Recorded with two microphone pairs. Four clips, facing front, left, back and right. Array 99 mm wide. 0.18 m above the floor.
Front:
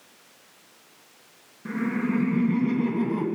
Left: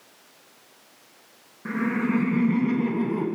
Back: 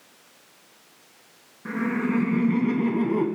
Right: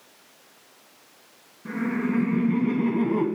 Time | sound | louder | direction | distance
1.6 | laughter | left 1 dB, back 1 dB | 115° left | 2.5 m